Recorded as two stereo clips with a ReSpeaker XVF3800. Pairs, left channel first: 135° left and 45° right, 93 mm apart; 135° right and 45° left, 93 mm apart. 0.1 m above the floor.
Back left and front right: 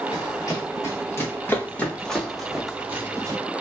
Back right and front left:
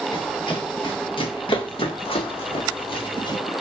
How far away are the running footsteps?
About 2.5 m.